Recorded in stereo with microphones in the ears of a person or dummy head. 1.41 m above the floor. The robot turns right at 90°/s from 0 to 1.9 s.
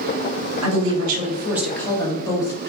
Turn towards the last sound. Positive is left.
turn(degrees=20)